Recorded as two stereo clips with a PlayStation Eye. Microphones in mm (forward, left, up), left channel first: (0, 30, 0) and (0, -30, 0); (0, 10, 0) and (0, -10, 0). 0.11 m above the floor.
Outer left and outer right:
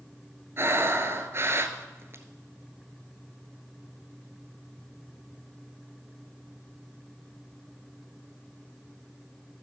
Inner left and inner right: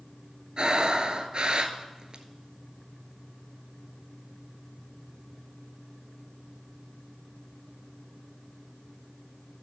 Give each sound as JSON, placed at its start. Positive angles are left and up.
{"t": 0.6, "sound": "breathing", "side_deg": -45, "distance_m": 0.8}